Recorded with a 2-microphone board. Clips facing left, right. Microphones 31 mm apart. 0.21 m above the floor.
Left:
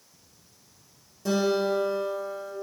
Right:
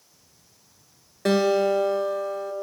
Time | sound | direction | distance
1.2 | a guitar | 85° right | 0.6 m